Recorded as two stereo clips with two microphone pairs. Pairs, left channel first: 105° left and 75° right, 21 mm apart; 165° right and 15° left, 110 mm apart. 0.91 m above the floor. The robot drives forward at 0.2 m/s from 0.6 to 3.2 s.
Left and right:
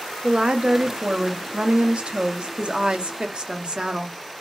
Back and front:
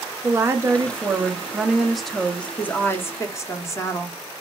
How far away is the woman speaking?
About 0.7 m.